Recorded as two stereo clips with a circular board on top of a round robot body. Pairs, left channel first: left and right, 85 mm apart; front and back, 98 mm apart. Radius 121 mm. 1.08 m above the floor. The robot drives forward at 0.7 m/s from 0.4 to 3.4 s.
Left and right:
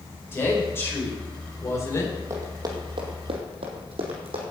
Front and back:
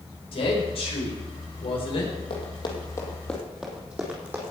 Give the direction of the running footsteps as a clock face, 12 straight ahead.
1 o'clock.